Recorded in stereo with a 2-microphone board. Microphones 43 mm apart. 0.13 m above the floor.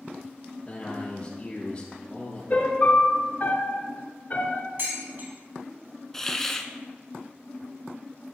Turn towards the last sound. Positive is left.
turn(degrees=10)  # may be behind; listen again after turning